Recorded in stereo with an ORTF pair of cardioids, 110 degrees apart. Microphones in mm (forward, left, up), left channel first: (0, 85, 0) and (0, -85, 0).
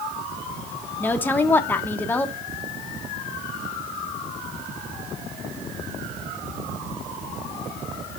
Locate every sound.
1.0 s a woman speaking: 10° left, 1.0 m